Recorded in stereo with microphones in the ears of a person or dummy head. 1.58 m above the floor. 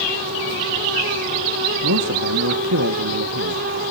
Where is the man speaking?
70° right (ahead or behind), 1.8 m.